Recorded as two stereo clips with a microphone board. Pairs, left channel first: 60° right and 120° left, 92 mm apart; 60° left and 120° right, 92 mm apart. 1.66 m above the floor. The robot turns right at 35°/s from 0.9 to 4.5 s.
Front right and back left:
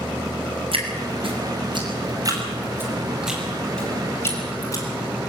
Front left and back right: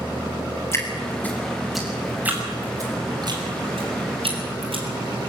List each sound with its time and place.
0.7 s dripping: 120° left, 6 m; by 4.8 s 115° right, 6 m